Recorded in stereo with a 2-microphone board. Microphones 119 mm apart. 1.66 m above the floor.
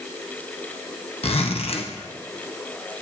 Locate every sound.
1.2 s a zipper: 55° left (ahead or behind), 1.3 m